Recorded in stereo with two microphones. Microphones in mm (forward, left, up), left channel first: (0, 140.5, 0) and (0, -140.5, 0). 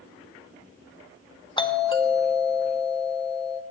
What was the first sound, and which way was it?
A doorbell, 15° left (ahead or behind).